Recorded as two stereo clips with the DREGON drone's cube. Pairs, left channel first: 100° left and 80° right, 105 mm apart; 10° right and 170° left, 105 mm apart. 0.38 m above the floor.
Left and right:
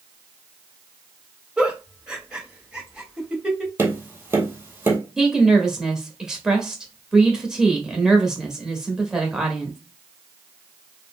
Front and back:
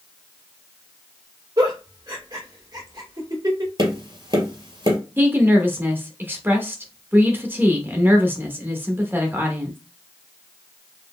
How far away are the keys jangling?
I don't hear keys jangling.